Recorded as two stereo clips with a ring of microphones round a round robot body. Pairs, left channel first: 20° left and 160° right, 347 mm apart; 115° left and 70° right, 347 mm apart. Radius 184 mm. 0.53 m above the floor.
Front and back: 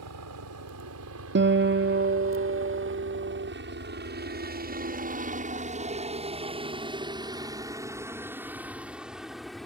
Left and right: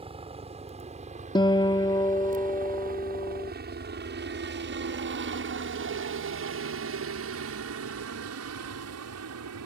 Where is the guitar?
Straight behind.